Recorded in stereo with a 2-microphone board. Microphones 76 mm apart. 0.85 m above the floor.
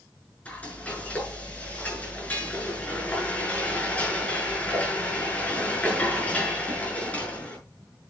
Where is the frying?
20° left (ahead or behind), 6.5 m.